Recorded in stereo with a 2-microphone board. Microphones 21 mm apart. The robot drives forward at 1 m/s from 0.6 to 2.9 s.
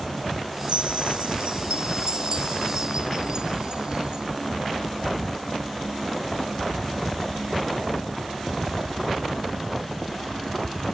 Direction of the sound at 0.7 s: 65° right (ahead or behind).